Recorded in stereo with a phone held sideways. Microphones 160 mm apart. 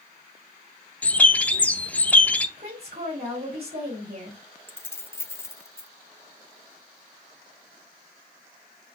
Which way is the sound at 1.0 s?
10° left (ahead or behind).